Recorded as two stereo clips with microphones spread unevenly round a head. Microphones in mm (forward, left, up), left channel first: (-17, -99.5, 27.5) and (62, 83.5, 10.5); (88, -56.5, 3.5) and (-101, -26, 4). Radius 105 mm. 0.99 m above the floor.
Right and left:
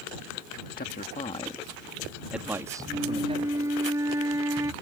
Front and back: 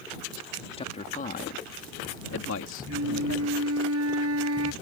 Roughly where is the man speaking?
Right.